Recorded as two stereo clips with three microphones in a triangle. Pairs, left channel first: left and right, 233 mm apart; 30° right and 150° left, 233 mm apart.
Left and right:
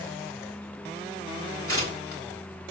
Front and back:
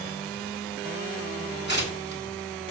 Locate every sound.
1.7 s tearing paper: 70° right, 3 m